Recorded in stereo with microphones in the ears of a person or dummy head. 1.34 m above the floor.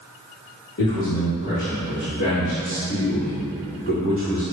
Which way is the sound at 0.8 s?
50° left (ahead or behind).